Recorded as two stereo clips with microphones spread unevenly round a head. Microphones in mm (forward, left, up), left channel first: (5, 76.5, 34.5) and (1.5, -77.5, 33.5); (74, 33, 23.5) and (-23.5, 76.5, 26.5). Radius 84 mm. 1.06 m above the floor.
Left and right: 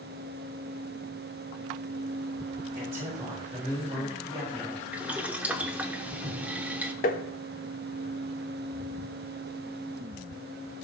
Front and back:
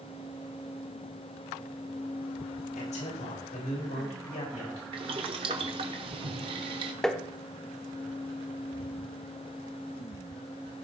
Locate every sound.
2.8 s a man speaking: 15° right, 5.5 m; by 4.8 s 20° right, 8 m
4.9 s boiling: 170° right, 0.8 m
7.0 s tapping: 60° left, 1.0 m